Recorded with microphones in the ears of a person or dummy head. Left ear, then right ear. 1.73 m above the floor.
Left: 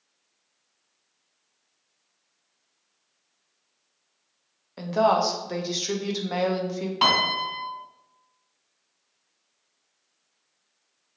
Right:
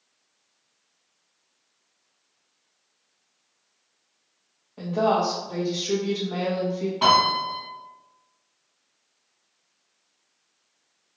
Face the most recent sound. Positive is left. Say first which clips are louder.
# right 2 dB
turn(degrees=55)  # may be behind; listen again after turning